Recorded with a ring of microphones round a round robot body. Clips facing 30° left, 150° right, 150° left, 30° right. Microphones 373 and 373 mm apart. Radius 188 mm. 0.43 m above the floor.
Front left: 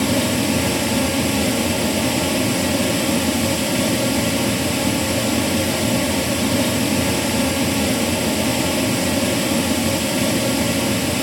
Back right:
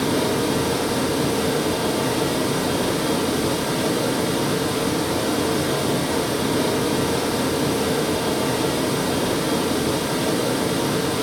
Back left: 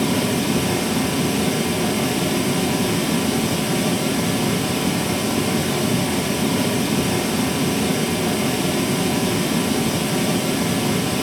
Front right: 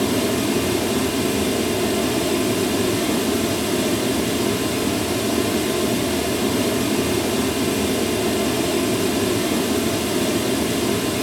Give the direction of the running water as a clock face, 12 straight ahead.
10 o'clock.